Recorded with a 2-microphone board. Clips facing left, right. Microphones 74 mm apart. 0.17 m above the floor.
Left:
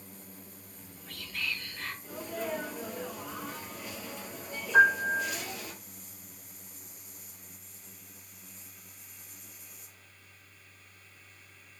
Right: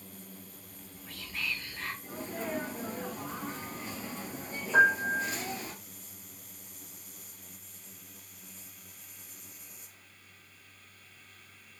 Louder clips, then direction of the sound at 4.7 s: Left 1 dB; 80° right.